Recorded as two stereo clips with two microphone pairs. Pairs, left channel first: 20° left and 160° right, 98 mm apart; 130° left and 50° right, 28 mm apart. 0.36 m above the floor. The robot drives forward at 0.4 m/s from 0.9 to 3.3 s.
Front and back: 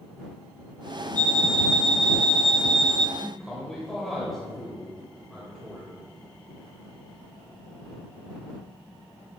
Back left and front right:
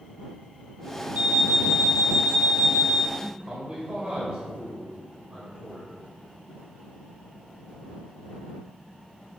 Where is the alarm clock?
55° right, 2.5 m; by 3.0 s 75° right, 2 m.